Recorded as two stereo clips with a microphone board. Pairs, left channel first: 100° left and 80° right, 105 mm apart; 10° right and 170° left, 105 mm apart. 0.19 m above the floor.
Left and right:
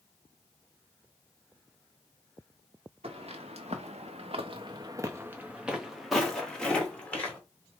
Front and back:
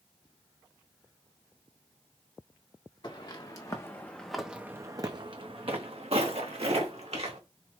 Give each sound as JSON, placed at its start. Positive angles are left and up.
{"t": 3.0, "sound": "footsteps", "azimuth_deg": -55, "distance_m": 1.0}